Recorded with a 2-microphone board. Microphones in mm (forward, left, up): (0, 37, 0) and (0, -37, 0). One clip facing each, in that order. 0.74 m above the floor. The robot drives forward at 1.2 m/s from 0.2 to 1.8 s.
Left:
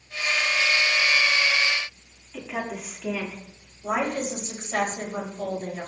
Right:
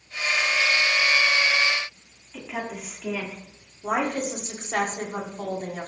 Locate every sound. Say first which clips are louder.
2.3 s a woman speaking: left 1 dB; centre (ahead or behind), 1.8 m
3.8 s a woman speaking: right 1 dB; 55° right (ahead or behind), 2 m